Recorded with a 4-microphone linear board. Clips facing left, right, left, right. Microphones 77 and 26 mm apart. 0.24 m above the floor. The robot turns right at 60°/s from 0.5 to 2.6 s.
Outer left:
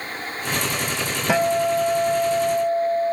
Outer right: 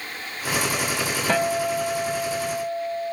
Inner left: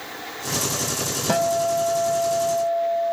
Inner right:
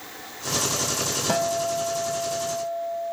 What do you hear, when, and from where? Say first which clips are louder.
1.3 s a guitar: outer left 4 dB, inner left 5 dB; 10° left, 1.3 m; by 3.1 s 90° left, 1.3 m